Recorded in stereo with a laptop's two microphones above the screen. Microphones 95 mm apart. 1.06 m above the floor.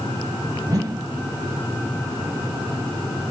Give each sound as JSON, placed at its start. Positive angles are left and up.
{"t": 0.7, "sound": "a whoosh", "side_deg": -40, "distance_m": 1.1}